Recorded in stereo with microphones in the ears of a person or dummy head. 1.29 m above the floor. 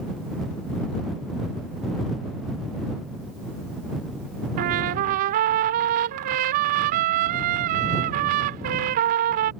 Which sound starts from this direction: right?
A trumpet, at 4.6 s.